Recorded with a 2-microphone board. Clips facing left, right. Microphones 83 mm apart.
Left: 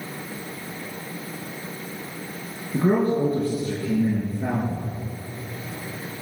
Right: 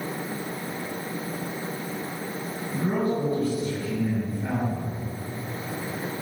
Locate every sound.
2.7 s a man speaking: 60° left (ahead or behind), 3.5 m